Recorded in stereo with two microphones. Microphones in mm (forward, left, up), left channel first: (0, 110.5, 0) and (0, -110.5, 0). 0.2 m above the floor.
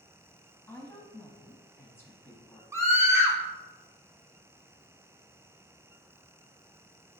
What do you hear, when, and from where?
0.7 s a woman speaking: 10° left (ahead or behind), 1.0 m
2.7 s a scream: 15° right (ahead or behind), 1.4 m